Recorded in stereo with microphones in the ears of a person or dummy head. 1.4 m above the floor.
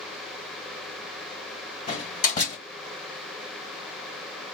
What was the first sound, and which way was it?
A door slam, 55° left (ahead or behind).